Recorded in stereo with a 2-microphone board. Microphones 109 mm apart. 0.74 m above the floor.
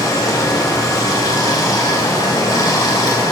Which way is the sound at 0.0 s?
35° left (ahead or behind).